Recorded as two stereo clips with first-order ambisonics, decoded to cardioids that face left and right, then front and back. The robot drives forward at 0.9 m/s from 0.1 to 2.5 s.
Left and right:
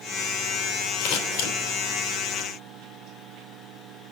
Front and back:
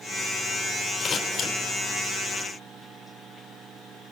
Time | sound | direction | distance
1.0 | scissors | 65° left | 3 m